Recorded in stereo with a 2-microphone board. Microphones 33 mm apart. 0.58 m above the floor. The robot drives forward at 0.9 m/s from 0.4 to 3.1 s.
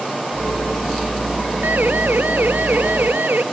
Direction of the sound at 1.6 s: 85° right.